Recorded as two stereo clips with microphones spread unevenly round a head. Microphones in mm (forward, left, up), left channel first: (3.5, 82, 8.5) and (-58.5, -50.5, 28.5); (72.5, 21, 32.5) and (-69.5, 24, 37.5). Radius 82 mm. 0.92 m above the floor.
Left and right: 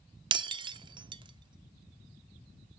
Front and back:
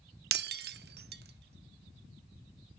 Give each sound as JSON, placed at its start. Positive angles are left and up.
{"t": 0.3, "sound": "breaking glass", "azimuth_deg": -165, "distance_m": 0.6}